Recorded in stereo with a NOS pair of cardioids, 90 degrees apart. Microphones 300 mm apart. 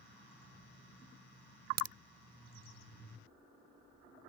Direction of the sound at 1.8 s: 70° right.